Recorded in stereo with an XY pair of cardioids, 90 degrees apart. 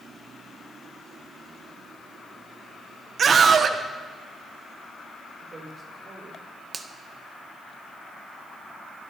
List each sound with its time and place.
3.2 s a scream: 50° right, 1.5 m
5.4 s a woman speaking: 30° right, 5.5 m
6.7 s a finger snap: 25° right, 1.5 m